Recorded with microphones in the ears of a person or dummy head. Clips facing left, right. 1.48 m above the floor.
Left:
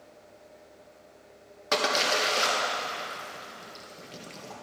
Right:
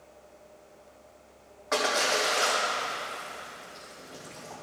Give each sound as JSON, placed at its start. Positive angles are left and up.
{"t": 1.7, "sound": "a splash", "side_deg": 45, "distance_m": 1.5}